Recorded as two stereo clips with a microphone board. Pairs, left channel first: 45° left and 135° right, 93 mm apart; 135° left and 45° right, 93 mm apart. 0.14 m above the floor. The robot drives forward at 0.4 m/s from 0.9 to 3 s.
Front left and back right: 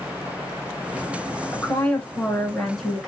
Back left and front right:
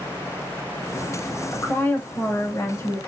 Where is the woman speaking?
90° left, 1.1 m; by 3.1 s 135° left, 1.3 m.